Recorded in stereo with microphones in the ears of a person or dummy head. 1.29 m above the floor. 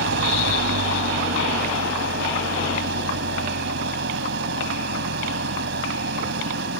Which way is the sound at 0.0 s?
70° right (ahead or behind).